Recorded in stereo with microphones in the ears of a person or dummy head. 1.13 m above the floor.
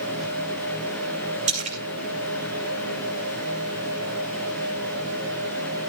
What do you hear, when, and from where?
1.5 s a splash: 40° right (ahead or behind), 2.5 m